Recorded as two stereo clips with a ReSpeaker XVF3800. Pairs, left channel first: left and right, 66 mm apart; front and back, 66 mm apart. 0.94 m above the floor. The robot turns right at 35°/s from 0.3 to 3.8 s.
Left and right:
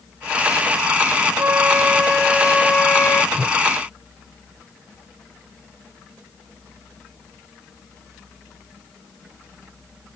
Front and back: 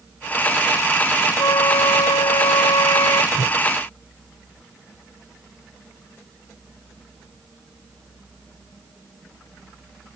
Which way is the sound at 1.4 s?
35° right.